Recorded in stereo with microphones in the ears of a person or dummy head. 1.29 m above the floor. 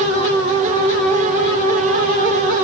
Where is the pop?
I don't hear a pop.